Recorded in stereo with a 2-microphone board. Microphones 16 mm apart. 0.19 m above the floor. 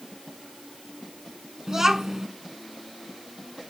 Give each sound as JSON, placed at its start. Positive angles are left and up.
{"t": 1.7, "sound": "a child speaking", "side_deg": -30, "distance_m": 1.0}